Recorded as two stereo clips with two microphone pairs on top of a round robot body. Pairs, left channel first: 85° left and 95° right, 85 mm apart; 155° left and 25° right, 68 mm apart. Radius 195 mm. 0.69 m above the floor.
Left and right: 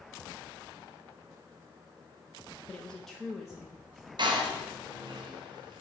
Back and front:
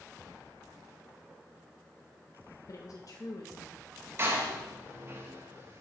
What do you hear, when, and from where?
2.7 s a woman speaking: 165° left, 0.8 m; by 4.1 s 175° right, 1.5 m
4.2 s a door slam: 75° right, 1.4 m